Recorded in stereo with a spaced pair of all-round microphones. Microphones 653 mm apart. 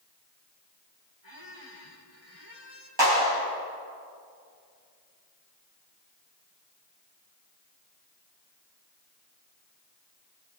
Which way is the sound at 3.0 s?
40° right (ahead or behind).